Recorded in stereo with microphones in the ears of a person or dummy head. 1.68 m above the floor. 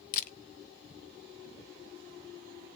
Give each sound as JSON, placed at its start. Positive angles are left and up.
{"t": 0.1, "sound": "a camera shutter", "side_deg": 45, "distance_m": 0.5}